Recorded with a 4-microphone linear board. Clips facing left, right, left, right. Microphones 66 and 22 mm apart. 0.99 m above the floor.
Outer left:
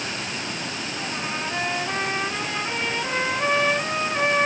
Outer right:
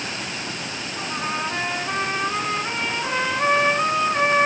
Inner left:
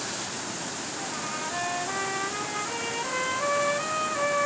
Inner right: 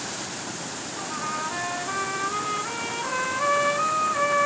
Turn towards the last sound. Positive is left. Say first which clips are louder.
# outer right 4 dB, inner right 5 dB
turn(degrees=-40)  # may be behind; listen again after turning